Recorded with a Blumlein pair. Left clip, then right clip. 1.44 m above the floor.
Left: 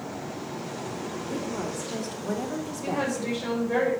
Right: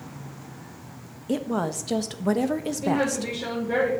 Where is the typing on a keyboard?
No typing on a keyboard in this recording.